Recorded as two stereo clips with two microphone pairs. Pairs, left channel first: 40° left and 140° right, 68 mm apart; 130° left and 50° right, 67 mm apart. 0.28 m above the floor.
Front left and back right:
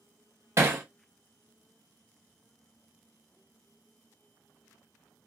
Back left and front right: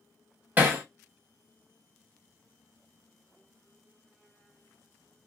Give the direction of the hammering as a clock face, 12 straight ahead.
4 o'clock.